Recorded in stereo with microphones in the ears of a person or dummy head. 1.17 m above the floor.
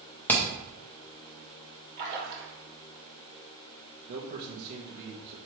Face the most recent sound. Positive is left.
turn(degrees=-60)  # may be behind; listen again after turning